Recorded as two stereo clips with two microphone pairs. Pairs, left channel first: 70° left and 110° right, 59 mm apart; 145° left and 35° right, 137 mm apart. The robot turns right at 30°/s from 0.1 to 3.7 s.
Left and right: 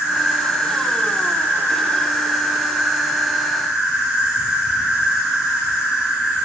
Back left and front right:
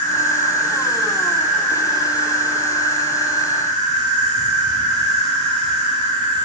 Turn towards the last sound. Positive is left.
turn(degrees=-55)